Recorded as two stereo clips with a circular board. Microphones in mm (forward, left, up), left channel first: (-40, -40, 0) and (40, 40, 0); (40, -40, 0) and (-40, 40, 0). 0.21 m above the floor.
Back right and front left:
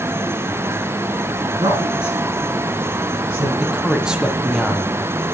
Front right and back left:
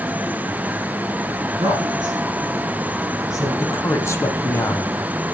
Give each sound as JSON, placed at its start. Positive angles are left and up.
{"t": 1.4, "sound": "a woman speaking", "azimuth_deg": 95, "distance_m": 3.5}
{"t": 3.6, "sound": "a man speaking", "azimuth_deg": -30, "distance_m": 1.0}